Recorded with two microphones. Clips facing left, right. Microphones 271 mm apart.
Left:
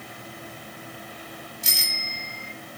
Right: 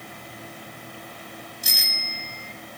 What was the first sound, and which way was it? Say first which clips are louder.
A bicycle bell: even; 25° left (ahead or behind).